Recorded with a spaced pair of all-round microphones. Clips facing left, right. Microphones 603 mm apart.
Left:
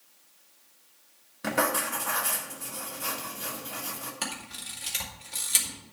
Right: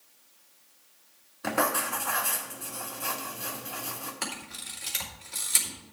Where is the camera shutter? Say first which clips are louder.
Even; 55° left (ahead or behind), 3 m.